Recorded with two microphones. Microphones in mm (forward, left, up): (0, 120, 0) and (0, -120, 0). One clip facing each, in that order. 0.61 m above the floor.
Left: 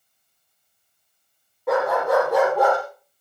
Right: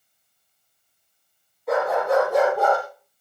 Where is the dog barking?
65° left (ahead or behind), 7 m; by 2.8 s 75° left (ahead or behind), 7 m.